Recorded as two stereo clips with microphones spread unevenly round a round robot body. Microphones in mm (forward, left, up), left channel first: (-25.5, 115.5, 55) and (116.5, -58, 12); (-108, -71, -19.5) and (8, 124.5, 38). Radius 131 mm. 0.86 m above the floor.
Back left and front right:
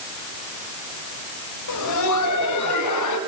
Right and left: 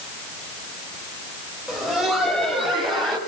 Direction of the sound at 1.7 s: 150° left.